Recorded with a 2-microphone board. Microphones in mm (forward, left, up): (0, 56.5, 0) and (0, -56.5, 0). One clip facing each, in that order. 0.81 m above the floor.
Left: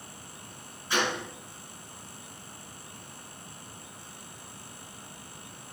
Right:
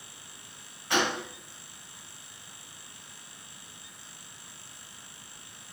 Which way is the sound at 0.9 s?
65° right (ahead or behind).